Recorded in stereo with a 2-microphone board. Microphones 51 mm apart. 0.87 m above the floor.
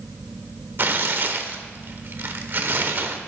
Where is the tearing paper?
45° right (ahead or behind), 0.9 m.